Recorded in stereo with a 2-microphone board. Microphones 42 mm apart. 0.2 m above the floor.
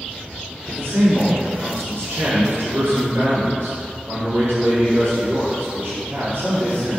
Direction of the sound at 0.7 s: 60° right (ahead or behind).